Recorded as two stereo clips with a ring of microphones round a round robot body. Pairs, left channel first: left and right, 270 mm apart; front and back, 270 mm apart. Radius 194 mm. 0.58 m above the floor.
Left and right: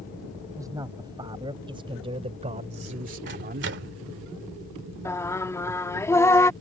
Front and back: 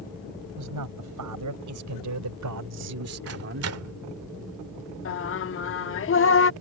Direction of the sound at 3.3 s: 145° right.